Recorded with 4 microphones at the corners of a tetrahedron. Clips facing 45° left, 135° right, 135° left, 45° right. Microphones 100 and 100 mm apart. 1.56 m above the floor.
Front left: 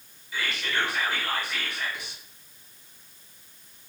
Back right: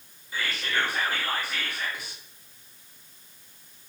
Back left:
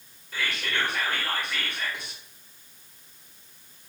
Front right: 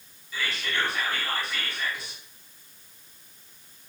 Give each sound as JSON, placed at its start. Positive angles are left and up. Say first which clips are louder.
{"t": 0.3, "sound": "whispering", "louder": "even, even", "azimuth_deg": 170, "distance_m": 1.5}